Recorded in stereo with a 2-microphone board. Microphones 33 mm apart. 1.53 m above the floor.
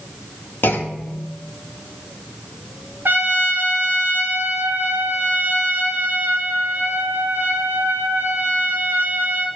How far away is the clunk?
About 0.8 m.